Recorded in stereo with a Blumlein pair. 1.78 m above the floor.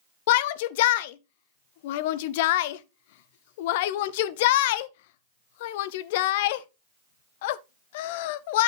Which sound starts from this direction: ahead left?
A shout, at 0.3 s.